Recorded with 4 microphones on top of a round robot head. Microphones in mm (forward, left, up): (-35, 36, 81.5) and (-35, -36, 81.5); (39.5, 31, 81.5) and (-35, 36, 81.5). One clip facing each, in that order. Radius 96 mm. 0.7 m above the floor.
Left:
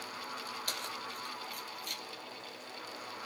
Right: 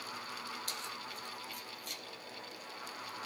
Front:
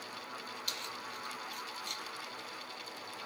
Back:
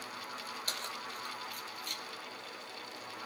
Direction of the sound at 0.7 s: 125° left.